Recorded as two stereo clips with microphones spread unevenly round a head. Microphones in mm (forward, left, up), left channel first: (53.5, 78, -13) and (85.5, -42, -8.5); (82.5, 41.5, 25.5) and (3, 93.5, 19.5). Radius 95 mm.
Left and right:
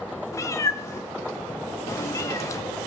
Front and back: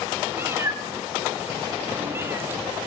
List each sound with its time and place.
0.3 s a cat meowing: 125° left, 0.6 m